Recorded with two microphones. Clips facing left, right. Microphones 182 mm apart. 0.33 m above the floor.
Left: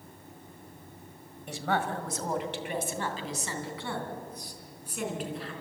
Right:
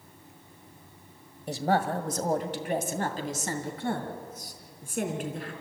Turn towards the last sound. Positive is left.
turn(degrees=-45)  # may be behind; listen again after turning